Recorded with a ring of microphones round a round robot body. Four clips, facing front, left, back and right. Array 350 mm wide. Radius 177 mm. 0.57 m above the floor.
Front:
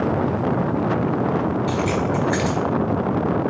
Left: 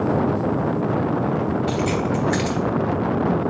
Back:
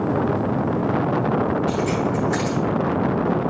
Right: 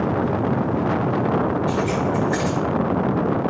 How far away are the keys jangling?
About 2.5 m.